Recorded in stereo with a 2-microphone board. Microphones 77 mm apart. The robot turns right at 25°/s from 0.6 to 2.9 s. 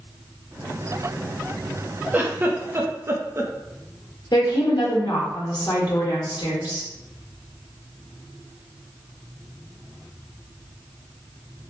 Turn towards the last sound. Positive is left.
turn(degrees=65)  # may be behind; listen again after turning